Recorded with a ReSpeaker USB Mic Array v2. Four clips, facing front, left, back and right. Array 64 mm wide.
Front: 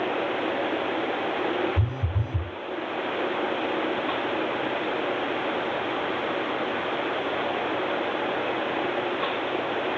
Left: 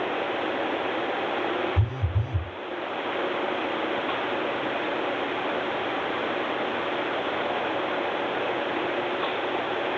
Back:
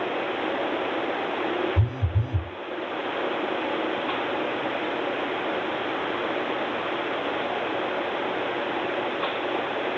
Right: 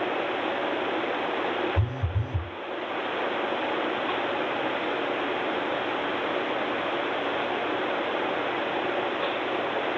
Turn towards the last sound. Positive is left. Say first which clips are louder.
# left 1 dB, back 1 dB
turn(degrees=160)